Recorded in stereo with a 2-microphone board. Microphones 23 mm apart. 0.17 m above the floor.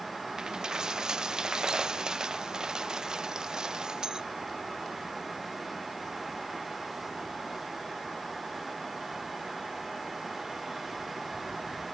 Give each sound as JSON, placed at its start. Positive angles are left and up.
{"t": 0.4, "sound": "a dropped coin", "side_deg": -30}